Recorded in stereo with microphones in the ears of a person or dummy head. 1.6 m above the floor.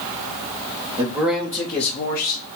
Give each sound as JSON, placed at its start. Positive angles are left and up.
{"t": 1.0, "sound": "a man speaking", "side_deg": -20, "distance_m": 0.7}